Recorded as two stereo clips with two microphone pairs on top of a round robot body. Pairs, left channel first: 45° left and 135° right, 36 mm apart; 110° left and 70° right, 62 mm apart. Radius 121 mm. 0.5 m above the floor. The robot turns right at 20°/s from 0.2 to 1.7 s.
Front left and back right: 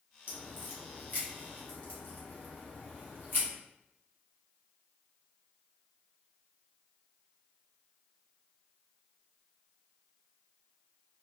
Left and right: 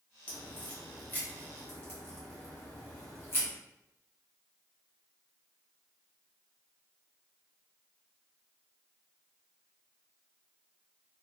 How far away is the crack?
About 1.4 m.